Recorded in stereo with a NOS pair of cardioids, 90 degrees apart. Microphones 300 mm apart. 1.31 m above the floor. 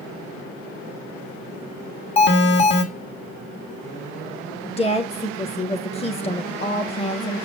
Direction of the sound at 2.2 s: 40° left.